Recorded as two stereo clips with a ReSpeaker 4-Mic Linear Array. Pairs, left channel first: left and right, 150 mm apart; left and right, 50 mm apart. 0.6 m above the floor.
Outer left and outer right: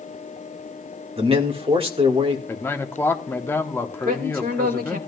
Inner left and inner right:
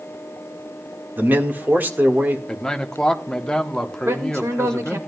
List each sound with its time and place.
1.2 s a man speaking: 35° right (ahead or behind), 1.5 m
2.5 s a man speaking: 15° left (ahead or behind), 0.9 m
4.0 s a man speaking: 65° right (ahead or behind), 1.8 m